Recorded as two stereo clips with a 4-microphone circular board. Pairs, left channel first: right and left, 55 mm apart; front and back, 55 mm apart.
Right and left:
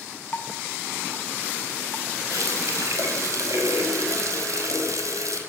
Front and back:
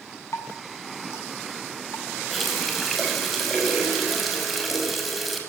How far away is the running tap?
About 5.5 m.